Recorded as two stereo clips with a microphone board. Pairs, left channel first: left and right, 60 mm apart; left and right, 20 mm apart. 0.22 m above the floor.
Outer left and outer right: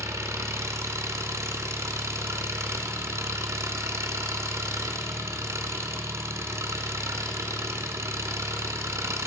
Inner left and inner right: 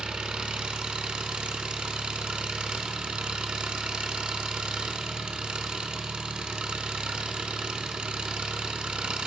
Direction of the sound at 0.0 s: 65° right (ahead or behind).